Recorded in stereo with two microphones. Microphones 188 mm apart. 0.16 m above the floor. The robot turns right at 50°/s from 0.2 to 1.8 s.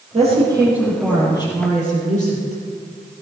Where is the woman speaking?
35° right, 5 m; by 2.6 s 45° left, 5 m.